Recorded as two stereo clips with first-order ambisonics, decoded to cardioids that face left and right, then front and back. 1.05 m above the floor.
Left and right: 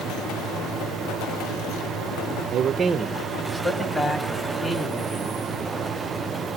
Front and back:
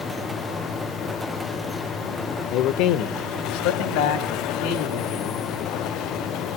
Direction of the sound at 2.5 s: 40° right.